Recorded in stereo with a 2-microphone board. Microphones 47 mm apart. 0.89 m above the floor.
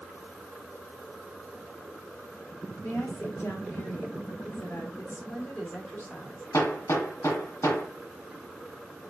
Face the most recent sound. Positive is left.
turn(degrees=75)  # may be behind; listen again after turning